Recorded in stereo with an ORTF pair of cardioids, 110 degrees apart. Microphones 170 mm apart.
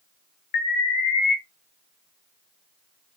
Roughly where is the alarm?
Ahead left.